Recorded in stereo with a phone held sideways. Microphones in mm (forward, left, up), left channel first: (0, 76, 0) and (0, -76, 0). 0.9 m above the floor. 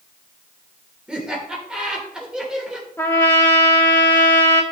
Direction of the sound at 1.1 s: 5° right (ahead or behind).